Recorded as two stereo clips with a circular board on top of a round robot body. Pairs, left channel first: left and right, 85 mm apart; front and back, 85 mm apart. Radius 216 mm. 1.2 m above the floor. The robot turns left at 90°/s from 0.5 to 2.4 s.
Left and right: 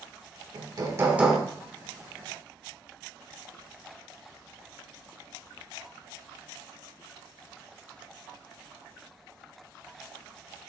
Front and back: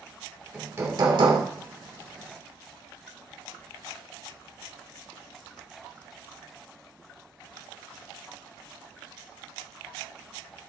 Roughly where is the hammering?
Right.